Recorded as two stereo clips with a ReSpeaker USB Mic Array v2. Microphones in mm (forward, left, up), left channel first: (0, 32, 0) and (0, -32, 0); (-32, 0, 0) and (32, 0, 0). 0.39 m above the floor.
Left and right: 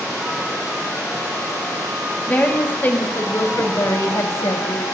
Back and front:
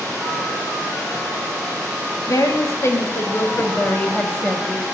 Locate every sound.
2.3 s a woman speaking: 155° left, 2.5 m; by 4.8 s 95° left, 2.0 m